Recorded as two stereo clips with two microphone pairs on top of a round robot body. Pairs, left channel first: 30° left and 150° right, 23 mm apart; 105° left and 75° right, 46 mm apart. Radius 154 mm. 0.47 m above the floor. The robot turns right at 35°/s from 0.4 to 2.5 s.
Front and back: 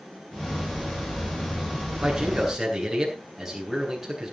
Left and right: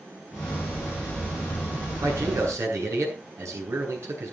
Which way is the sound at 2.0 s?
90° right.